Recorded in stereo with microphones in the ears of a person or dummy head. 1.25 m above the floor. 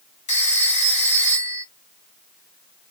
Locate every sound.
0.3 s a phone ringing: 35° left (ahead or behind), 0.7 m